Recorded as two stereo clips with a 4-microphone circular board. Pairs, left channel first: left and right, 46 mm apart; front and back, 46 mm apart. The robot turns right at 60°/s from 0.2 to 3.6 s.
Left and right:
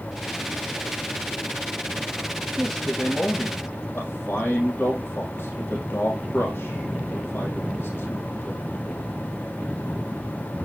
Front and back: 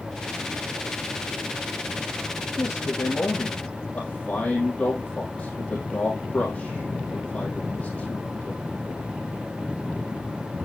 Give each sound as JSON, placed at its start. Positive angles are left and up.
{"t": 2.6, "sound": "a man speaking", "azimuth_deg": 0, "distance_m": 3.5}